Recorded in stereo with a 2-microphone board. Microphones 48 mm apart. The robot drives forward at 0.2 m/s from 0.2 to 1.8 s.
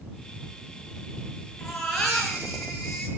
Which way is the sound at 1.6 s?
10° left (ahead or behind).